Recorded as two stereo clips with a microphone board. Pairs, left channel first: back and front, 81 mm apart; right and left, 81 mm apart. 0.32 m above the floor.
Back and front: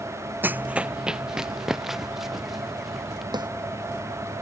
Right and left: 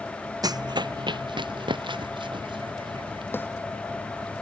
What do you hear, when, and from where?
0.4 s running footsteps: 60° left; by 3.2 s 90° left
3.3 s a snare drum: 25° right